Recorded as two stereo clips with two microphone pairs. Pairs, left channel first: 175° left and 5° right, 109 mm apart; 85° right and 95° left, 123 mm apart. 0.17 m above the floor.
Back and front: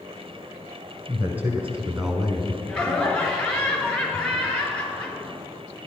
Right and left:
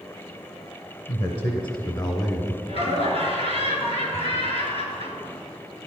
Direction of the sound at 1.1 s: 65° right.